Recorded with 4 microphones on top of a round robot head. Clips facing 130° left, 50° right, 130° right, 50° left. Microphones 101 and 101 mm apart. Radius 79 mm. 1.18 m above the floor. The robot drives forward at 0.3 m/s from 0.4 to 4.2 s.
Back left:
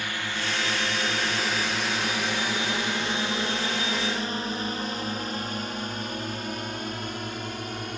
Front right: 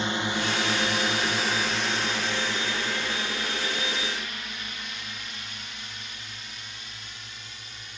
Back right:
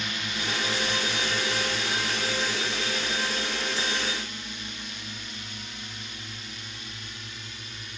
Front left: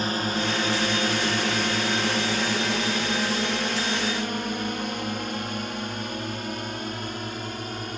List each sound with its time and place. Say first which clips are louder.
0.0 s a drone: front right 4 dB, front left 8 dB; 10° left; by 8.0 s 95° left